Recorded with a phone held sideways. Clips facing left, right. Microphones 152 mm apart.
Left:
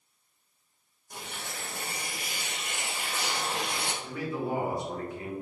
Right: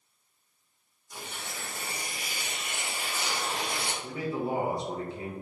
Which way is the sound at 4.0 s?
25° right (ahead or behind).